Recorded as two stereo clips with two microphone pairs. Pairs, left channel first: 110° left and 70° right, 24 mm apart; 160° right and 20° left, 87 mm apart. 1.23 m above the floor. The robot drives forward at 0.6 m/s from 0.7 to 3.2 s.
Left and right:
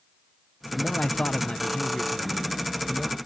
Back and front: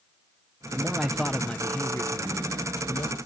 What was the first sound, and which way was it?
A man speaking, 90° left.